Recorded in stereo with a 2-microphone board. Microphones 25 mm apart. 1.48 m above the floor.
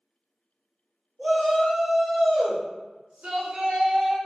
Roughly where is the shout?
Right.